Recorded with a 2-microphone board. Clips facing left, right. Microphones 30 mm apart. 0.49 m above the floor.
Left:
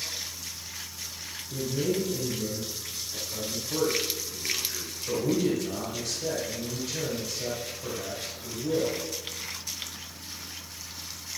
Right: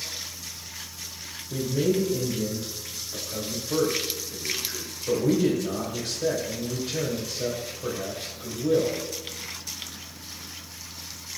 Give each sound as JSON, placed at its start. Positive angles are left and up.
{"t": 1.5, "sound": "a man speaking", "side_deg": -35, "distance_m": 2.5}